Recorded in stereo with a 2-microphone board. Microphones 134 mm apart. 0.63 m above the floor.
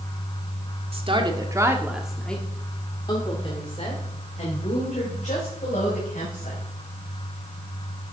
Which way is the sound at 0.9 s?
40° right (ahead or behind).